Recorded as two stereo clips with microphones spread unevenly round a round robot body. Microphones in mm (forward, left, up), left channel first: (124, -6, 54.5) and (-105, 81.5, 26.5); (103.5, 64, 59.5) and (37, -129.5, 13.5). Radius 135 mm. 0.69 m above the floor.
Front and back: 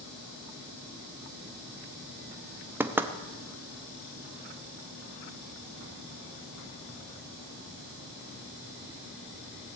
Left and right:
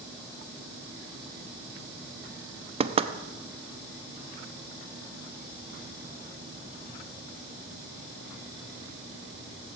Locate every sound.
2.8 s knocking: 130° right, 0.7 m